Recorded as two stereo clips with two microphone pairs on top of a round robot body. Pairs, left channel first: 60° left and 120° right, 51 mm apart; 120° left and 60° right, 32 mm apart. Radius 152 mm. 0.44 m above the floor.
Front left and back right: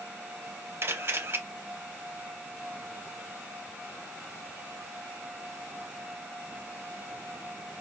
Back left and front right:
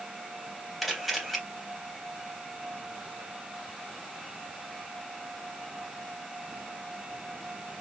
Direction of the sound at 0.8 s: 150° right.